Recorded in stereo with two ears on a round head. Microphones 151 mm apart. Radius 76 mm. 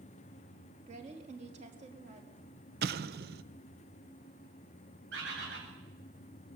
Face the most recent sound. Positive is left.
turn(degrees=-75)  # may be behind; listen again after turning